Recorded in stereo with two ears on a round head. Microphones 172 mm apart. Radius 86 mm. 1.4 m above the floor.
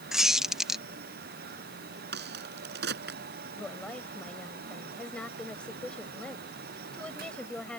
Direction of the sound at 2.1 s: 55° right (ahead or behind).